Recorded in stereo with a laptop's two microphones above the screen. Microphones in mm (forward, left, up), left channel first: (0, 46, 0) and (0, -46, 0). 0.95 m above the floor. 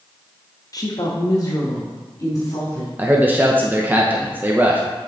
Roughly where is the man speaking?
Centre.